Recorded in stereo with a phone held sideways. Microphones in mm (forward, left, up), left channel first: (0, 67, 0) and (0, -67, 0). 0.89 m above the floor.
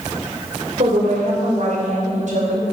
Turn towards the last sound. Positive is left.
turn(degrees=-75)  # may be behind; listen again after turning